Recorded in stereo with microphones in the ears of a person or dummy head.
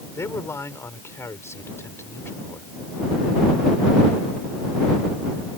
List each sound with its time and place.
0.1 s a man speaking: 15° left (ahead or behind)